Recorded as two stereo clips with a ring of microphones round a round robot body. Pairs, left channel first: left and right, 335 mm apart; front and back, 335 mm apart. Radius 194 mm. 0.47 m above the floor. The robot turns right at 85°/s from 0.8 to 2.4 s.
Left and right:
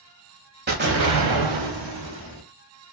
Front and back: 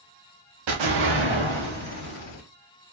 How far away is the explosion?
About 0.7 m.